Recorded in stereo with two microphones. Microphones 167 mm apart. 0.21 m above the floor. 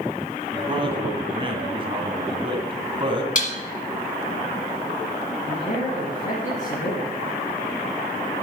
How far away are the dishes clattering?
About 1.4 m.